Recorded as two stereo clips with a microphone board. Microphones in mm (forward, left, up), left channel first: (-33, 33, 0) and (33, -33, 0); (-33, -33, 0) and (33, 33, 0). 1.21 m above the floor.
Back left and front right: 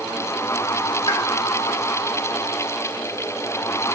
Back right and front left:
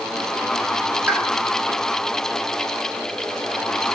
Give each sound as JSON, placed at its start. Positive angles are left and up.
{"t": 1.1, "sound": "a pop", "azimuth_deg": 115, "distance_m": 1.0}